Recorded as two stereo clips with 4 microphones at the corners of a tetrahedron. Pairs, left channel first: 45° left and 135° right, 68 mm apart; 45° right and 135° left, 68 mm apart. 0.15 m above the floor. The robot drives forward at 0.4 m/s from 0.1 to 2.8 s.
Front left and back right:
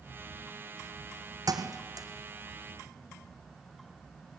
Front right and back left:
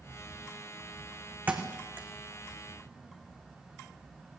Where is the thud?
160° right, 2.5 m; by 2.1 s 165° right, 2.5 m.